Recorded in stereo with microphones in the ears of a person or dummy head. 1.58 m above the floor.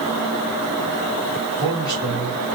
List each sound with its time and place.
1.6 s a man speaking: 20° left (ahead or behind), 2.5 m; by 2.6 s 35° left (ahead or behind), 1.9 m